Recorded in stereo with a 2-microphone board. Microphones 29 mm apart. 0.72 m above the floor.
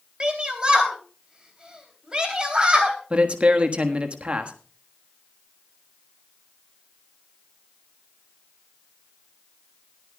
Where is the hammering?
No hammering in this recording.